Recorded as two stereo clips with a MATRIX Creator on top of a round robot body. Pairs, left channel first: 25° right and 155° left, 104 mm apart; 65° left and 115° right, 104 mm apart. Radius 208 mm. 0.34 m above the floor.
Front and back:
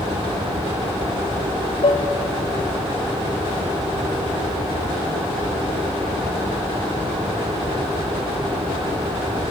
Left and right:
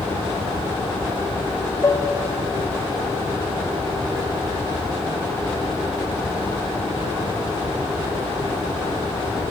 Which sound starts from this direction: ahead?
Dishes clattering, at 1.8 s.